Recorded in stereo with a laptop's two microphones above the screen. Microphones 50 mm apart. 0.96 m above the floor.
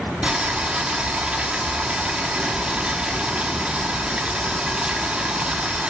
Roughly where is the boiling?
Right.